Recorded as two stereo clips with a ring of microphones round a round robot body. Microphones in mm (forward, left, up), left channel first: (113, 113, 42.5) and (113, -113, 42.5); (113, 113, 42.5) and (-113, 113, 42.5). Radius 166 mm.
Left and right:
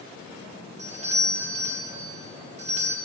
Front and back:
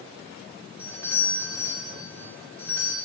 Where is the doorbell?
70° right, 1.0 m.